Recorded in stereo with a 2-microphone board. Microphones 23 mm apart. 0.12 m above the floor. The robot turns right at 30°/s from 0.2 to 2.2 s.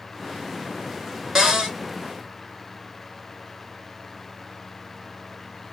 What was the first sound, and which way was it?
A cupboard door, 30° right (ahead or behind).